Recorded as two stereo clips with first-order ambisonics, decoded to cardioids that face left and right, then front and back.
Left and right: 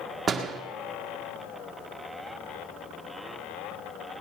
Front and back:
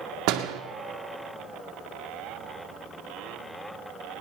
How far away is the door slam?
About 1.6 m.